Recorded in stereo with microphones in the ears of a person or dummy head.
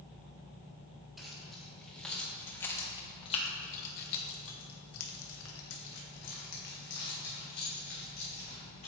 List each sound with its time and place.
1.2 s keys jangling: centre (ahead or behind), 2 m; by 8.9 s 45° left (ahead or behind), 3 m